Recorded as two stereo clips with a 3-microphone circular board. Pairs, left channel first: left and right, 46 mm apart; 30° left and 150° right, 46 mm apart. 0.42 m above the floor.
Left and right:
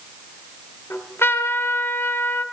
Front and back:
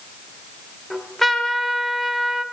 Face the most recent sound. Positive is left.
turn(degrees=110)